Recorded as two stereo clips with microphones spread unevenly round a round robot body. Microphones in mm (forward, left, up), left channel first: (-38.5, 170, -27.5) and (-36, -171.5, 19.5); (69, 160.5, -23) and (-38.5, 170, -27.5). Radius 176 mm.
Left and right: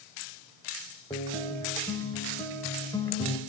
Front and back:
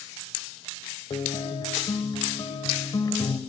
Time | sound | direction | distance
1.1 | a guitar | 20° left | 1.2 m